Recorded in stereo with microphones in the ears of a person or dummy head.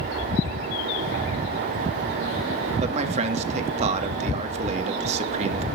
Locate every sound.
2.8 s a man speaking: 40° right (ahead or behind), 2.5 m